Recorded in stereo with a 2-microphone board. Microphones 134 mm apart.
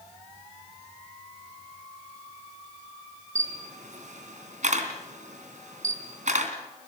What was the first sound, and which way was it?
A camera shutter, 70° right (ahead or behind).